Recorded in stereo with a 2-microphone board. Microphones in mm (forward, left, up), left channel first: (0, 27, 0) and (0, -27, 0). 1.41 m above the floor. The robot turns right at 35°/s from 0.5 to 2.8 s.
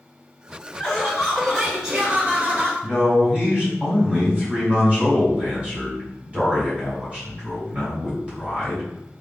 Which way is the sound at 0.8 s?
155° left.